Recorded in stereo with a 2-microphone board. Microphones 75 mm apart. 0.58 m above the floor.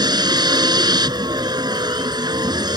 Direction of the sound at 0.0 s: 70° right (ahead or behind).